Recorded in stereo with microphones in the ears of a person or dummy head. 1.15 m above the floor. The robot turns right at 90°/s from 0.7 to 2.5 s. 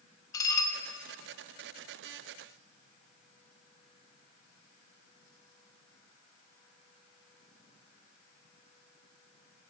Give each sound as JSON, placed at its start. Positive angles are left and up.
{"t": 0.3, "sound": "dishes clattering", "side_deg": 15, "distance_m": 0.8}